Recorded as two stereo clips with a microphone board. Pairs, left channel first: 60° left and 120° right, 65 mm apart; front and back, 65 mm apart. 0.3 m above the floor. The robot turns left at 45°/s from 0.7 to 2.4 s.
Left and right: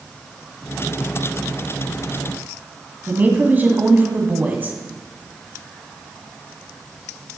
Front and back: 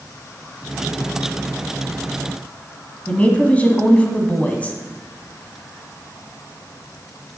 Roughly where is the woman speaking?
Ahead right.